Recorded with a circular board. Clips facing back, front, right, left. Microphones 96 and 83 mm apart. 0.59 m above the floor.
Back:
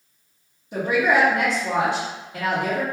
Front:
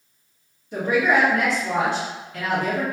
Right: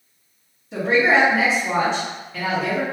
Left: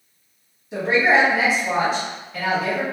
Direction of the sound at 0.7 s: 165° left.